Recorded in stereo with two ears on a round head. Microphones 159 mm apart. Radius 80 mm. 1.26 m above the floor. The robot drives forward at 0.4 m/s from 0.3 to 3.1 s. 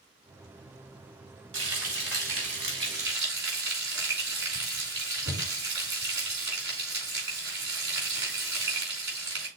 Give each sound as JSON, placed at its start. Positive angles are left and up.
{"t": 1.5, "sound": "frying", "side_deg": -75, "distance_m": 4.5}